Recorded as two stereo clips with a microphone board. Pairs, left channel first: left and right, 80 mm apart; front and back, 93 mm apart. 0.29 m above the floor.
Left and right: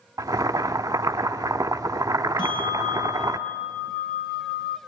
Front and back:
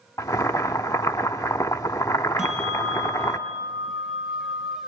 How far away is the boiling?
About 1.0 m.